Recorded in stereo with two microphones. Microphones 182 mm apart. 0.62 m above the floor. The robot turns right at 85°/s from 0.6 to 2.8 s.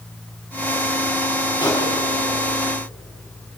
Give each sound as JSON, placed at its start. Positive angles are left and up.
{"t": 1.6, "sound": "a pop", "side_deg": 25, "distance_m": 6.5}